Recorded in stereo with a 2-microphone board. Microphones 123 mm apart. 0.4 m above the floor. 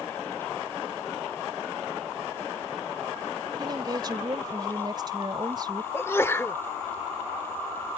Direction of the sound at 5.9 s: 20° left (ahead or behind).